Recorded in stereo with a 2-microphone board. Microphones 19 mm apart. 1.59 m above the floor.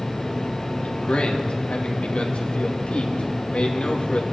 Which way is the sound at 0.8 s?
75° left (ahead or behind).